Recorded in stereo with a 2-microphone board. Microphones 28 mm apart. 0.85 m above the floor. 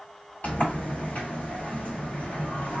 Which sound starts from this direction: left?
A sliding door, at 0.4 s.